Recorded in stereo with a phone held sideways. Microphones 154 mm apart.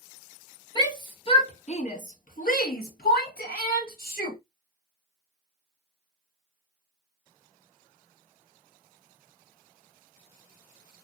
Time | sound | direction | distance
0.8 | a shout | 25° left (ahead or behind) | 1.5 m